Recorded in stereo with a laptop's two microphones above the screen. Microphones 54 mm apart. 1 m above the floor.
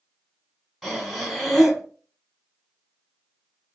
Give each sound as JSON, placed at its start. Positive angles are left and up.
{"t": 0.8, "sound": "breathing", "side_deg": 0, "distance_m": 2.5}